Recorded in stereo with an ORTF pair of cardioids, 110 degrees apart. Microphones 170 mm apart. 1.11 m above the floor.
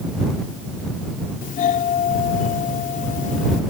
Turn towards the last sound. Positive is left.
turn(degrees=50)